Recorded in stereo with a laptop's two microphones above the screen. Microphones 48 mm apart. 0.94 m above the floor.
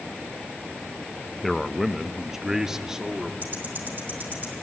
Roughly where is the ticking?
Right.